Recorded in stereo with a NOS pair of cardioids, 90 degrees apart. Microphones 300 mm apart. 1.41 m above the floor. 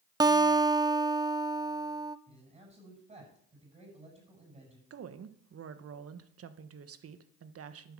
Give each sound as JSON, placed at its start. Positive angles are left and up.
{"t": 0.2, "sound": "a guitar", "azimuth_deg": -15, "distance_m": 0.6}
{"t": 2.3, "sound": "a man speaking", "azimuth_deg": -20, "distance_m": 7.5}
{"t": 4.9, "sound": "a woman speaking", "azimuth_deg": -50, "distance_m": 1.3}